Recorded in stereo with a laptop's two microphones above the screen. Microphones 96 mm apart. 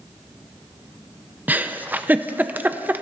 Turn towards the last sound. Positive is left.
turn(degrees=-15)  # may be behind; listen again after turning